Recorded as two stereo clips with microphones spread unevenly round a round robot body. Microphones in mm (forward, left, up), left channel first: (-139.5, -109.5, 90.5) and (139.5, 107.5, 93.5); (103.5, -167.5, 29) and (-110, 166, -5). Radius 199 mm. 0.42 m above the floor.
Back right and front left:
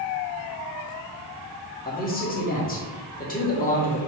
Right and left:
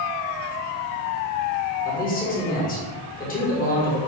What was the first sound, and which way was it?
A man speaking, 110° right.